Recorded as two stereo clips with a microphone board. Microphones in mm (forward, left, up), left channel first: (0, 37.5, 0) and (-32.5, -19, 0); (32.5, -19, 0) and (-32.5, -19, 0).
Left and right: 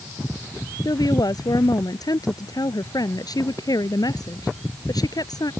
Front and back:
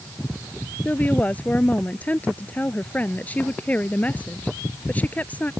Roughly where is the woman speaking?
Ahead left.